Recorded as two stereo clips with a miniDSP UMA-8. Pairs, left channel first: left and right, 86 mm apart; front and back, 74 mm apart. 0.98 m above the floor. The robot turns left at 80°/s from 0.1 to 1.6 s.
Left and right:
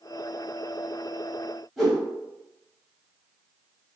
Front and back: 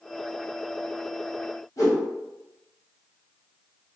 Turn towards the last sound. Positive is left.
turn(degrees=0)